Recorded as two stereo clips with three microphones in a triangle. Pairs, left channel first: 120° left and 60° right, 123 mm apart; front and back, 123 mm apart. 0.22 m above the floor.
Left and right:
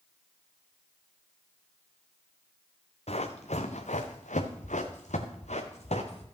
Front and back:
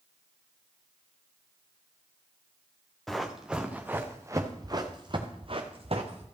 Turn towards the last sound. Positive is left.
turn(degrees=150)